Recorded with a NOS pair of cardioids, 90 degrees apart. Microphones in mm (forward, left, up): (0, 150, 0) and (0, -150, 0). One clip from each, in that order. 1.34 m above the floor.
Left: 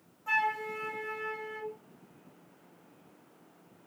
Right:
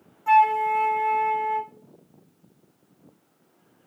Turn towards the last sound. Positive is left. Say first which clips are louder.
# right 12 dB
turn(degrees=-35)